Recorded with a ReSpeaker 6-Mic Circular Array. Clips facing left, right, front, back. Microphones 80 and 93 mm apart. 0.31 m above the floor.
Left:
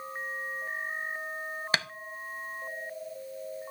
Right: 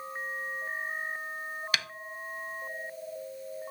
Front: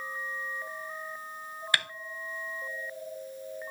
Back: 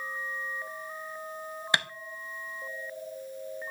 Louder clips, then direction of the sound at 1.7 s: Left 4 dB, back 2 dB; 125° left.